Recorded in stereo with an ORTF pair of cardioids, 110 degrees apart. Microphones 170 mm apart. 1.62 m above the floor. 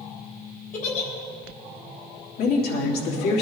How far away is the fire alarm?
I don't hear a fire alarm.